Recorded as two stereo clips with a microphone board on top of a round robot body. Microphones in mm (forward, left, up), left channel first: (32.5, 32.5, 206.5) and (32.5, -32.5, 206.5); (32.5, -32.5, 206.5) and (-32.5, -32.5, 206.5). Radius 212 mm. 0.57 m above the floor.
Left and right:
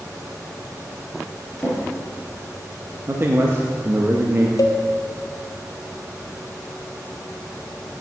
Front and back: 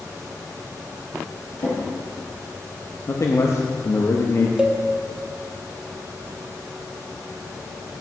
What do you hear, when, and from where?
1.6 s a drawer: 10° left, 3 m
3.1 s a man speaking: 40° right, 0.9 m
4.6 s a cowbell: 110° left, 0.8 m